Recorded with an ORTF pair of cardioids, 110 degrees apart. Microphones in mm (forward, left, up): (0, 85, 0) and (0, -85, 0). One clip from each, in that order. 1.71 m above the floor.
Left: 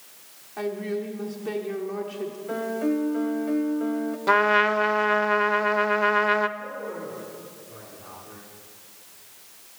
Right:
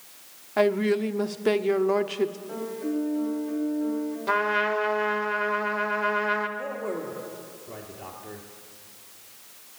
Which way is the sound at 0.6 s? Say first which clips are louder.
Right 7 dB; 60° right.